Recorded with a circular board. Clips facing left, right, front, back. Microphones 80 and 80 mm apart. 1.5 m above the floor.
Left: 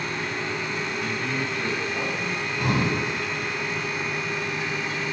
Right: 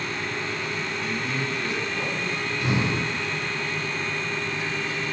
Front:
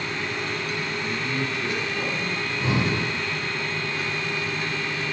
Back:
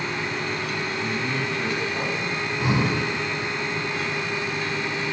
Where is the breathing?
110° left, 9.5 m.